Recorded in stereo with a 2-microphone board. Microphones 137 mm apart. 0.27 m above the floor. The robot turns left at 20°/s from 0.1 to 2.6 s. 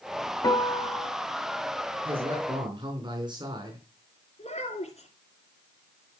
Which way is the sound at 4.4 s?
55° left (ahead or behind).